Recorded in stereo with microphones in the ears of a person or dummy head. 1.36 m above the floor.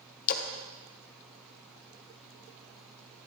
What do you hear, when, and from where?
0.3 s a splash: 45° left (ahead or behind), 0.7 m